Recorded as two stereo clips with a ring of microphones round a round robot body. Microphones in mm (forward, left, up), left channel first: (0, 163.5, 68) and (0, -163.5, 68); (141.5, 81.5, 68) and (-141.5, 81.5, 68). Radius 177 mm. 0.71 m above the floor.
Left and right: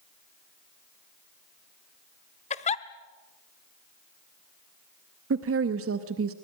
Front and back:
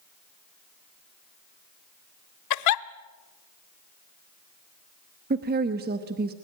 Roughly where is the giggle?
Ahead.